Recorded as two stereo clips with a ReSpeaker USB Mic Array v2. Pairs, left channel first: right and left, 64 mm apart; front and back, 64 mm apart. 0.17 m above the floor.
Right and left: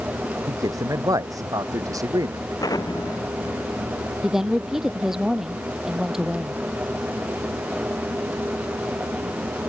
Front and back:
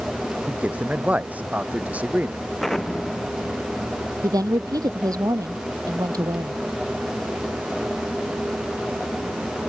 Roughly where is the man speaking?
Behind left.